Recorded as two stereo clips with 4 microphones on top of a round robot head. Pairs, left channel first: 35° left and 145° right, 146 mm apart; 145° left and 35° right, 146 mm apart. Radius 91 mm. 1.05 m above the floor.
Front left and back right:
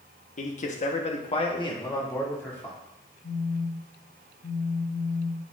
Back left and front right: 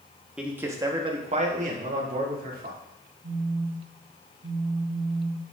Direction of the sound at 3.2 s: 5° right.